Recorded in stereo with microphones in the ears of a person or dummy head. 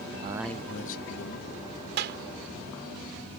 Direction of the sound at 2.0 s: 65° right (ahead or behind).